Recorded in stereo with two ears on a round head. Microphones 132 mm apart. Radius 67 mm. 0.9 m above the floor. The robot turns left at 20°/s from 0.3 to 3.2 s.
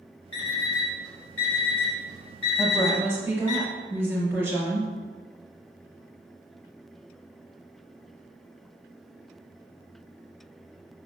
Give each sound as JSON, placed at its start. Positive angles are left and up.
{"t": 0.3, "sound": "an alarm clock", "side_deg": 75, "distance_m": 1.5}
{"t": 2.6, "sound": "a woman speaking", "side_deg": -25, "distance_m": 0.8}